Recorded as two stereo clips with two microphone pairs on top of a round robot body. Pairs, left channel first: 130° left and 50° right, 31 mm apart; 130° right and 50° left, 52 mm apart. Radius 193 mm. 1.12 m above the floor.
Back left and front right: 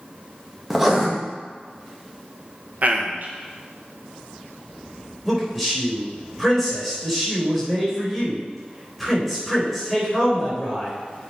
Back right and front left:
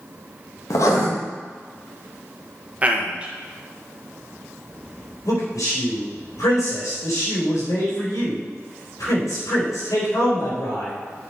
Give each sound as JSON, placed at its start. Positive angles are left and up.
{"t": 0.7, "sound": "writing", "azimuth_deg": -135, "distance_m": 1.7}
{"t": 2.8, "sound": "a man speaking", "azimuth_deg": -10, "distance_m": 1.5}
{"t": 5.2, "sound": "a man speaking", "azimuth_deg": -135, "distance_m": 4.0}